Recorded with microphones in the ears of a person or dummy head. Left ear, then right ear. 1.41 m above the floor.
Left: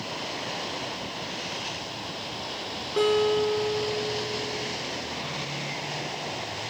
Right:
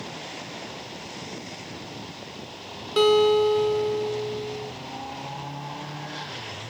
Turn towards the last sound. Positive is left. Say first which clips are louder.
# right 5 dB
turn(degrees=-45)  # may be behind; listen again after turning